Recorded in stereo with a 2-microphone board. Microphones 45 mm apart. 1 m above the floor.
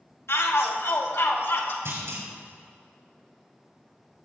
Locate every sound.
0.3 s a shout: 70° left (ahead or behind), 1.9 m; by 1.8 s 65° left (ahead or behind), 3 m
1.9 s a clunk: 70° right (ahead or behind), 3 m